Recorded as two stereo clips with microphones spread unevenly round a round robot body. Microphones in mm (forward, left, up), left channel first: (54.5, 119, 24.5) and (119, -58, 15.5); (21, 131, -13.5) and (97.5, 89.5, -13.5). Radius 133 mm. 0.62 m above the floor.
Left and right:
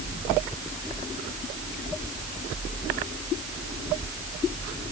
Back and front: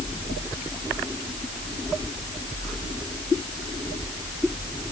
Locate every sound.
Only background noise.